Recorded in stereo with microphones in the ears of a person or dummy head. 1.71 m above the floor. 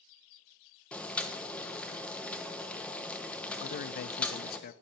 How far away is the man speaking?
About 0.6 m.